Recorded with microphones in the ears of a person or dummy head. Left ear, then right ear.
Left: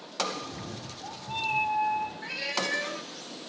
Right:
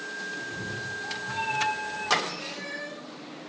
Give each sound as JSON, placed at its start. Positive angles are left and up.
{"t": 0.3, "sound": "a cat meowing", "side_deg": 25, "distance_m": 4.5}
{"t": 2.2, "sound": "a cat meowing", "side_deg": 60, "distance_m": 1.9}